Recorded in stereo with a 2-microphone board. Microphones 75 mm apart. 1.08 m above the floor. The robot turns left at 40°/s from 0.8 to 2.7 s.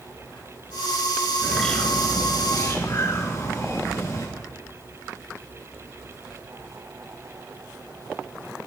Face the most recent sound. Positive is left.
turn(degrees=130)